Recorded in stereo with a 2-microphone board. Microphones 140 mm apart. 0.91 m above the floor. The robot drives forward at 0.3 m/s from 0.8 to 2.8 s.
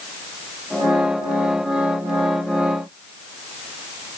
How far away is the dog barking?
I don't hear a dog barking.